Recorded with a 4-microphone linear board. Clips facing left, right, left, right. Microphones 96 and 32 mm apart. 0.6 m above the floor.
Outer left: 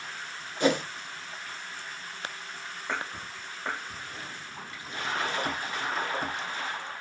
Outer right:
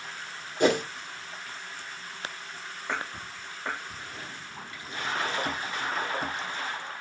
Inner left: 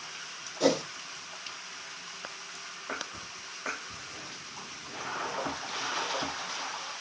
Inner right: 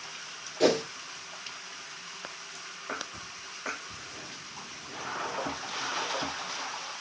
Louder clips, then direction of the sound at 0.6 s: Outer right 2 dB, inner right 2 dB; 60° right (ahead or behind).